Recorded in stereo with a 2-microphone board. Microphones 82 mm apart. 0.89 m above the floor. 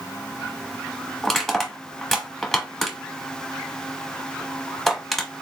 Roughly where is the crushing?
Centre.